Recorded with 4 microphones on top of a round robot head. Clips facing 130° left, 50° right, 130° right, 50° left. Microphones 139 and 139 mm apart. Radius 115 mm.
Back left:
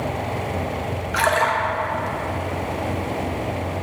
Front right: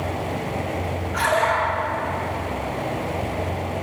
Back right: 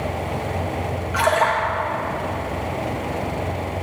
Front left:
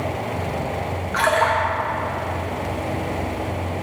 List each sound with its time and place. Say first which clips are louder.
1.1 s a splash: back left 1 dB, even; 150° left, 0.5 m